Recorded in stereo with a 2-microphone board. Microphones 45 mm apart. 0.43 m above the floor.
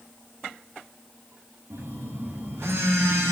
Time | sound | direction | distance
1.7 | a phone buzzing | 80° right | 2.5 m